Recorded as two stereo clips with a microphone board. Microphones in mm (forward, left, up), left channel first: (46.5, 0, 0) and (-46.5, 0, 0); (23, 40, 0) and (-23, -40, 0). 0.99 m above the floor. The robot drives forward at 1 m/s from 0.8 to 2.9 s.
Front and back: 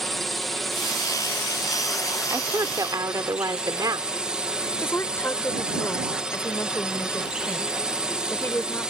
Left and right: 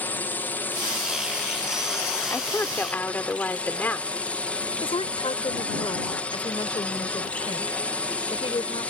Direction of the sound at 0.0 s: 85° left.